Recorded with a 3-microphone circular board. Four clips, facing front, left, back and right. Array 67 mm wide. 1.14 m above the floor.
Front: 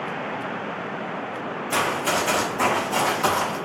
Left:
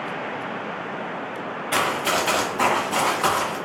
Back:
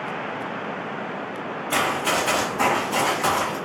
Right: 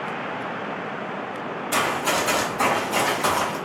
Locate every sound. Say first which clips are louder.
1.7 s running footsteps: left 1 dB, back 1 dB; 135° left, 1.3 m; by 3.6 s 80° left, 2.0 m